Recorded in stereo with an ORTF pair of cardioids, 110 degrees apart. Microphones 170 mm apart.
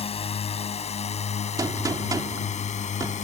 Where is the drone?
35° left; by 3.2 s 45° left.